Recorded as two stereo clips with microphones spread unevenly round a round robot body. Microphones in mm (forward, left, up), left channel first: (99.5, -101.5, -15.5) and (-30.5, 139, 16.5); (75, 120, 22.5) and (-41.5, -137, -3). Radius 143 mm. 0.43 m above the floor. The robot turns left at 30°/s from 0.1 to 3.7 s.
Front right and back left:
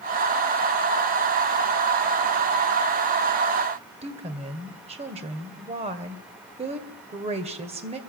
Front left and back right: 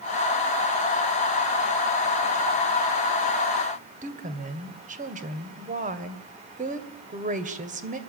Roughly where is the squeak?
I don't hear a squeak.